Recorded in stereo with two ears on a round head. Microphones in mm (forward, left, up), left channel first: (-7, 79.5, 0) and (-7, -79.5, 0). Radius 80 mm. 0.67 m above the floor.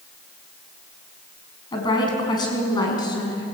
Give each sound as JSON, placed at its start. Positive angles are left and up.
{"t": 1.7, "sound": "a woman speaking", "side_deg": 25, "distance_m": 5.5}